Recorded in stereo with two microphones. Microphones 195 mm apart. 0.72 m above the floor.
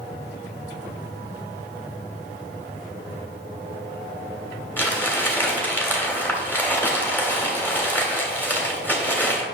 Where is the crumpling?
10° left (ahead or behind), 2.5 m.